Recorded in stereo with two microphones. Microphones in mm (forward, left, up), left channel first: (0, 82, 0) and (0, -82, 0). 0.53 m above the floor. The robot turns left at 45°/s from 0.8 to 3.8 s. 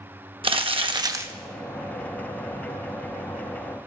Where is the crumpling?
35° right (ahead or behind), 0.6 m; by 1.3 s 15° right (ahead or behind), 0.6 m.